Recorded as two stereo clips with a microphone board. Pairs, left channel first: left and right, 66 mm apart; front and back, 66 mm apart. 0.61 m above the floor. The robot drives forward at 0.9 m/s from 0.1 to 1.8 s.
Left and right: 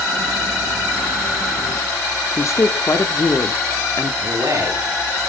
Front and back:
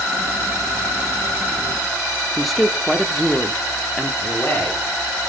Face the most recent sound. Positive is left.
turn(degrees=-60)